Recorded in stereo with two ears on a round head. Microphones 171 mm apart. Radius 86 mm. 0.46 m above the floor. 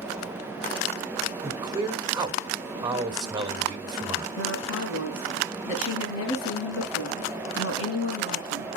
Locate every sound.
1.4 s a man speaking: 20° right (ahead or behind), 1.5 m
4.4 s a woman speaking: 75° left (ahead or behind), 4.5 m